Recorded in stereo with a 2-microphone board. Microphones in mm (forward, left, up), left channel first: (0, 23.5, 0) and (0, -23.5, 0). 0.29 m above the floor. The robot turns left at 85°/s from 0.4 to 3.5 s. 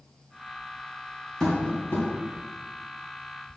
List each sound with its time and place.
1.4 s tapping: 10° left (ahead or behind), 2.5 m; by 2.1 s 50° left (ahead or behind), 2.5 m